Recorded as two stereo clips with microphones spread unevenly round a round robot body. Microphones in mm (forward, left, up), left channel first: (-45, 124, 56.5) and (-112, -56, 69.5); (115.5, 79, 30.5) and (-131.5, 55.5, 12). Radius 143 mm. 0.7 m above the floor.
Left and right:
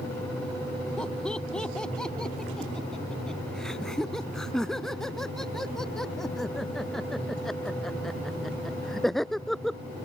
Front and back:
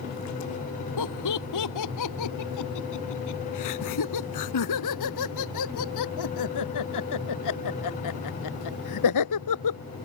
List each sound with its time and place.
1.0 s laughter: 15° right; by 9.8 s 20° right